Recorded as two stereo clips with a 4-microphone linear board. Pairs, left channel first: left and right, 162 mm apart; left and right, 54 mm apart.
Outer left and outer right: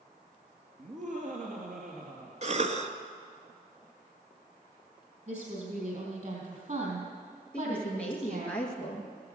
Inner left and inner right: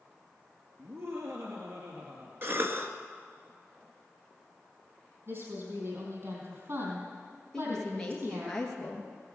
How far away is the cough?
About 1.4 m.